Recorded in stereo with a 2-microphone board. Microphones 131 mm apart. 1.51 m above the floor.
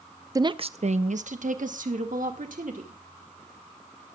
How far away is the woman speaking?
About 0.5 m.